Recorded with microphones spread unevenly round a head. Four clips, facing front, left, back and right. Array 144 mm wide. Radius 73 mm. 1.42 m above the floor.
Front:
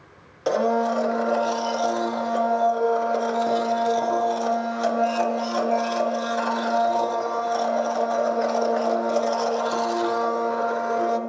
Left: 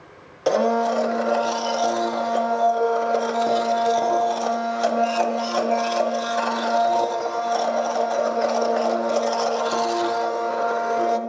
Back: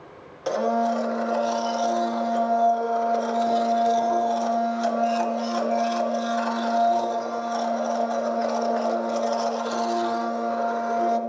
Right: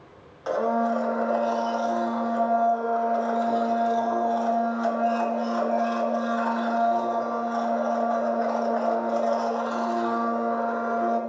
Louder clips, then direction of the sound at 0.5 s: Left 5 dB, front 2 dB; 75° left.